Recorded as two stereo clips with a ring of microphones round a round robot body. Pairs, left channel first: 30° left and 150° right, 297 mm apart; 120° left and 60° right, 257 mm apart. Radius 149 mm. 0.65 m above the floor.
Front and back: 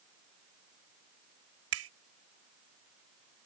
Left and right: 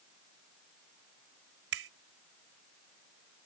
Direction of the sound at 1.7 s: 110° right.